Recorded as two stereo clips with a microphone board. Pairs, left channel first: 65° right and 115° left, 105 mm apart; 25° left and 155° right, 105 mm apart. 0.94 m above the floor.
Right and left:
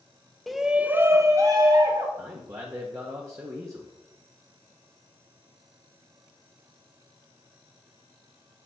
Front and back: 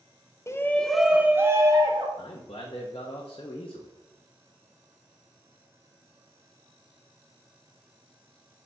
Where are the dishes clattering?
No dishes clattering in this recording.